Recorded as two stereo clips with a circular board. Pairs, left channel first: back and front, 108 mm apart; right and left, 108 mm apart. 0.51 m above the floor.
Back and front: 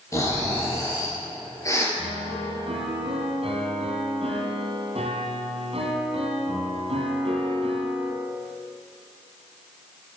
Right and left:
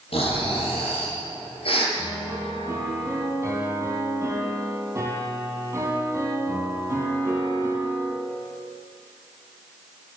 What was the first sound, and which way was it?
Snoring, 120° right.